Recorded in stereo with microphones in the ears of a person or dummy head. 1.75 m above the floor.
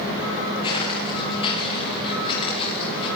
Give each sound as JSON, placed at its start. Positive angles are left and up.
{"t": 0.6, "sound": "footsteps", "side_deg": 35, "distance_m": 9.5}